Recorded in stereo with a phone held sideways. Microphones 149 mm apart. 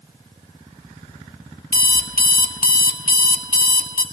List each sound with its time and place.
1.7 s an alarm clock: 90° left, 1.1 m